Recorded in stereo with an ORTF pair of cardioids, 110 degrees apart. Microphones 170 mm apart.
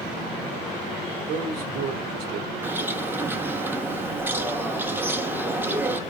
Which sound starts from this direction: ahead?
A bird, at 2.6 s.